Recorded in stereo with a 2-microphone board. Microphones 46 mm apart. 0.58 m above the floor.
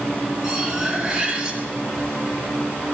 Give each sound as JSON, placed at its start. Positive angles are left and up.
{"t": 0.4, "sound": "cutlery clinking", "side_deg": -25, "distance_m": 2.5}